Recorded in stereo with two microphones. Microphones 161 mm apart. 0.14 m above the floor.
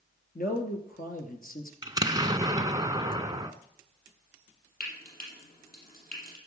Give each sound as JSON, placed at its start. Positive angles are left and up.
{"t": 0.3, "sound": "a man speaking", "side_deg": 65, "distance_m": 2.0}
{"t": 1.8, "sound": "an explosion", "side_deg": -25, "distance_m": 0.7}
{"t": 4.8, "sound": "frying", "side_deg": 70, "distance_m": 5.0}